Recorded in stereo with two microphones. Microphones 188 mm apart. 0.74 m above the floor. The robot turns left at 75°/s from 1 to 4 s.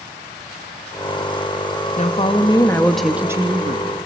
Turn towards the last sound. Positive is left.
turn(degrees=-75)